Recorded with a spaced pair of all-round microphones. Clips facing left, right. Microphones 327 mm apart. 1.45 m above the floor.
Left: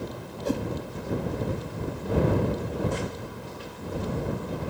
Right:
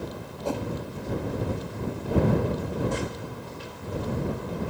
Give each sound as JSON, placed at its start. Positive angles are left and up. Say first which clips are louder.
{"t": 0.5, "sound": "a whoosh", "louder": "left 2 dB", "side_deg": 25}